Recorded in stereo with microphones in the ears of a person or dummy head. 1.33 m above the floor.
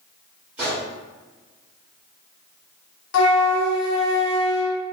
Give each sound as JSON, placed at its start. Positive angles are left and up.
{"t": 0.6, "sound": "a gunshot", "side_deg": -5, "distance_m": 1.1}
{"t": 3.1, "sound": "a flute", "side_deg": 80, "distance_m": 0.8}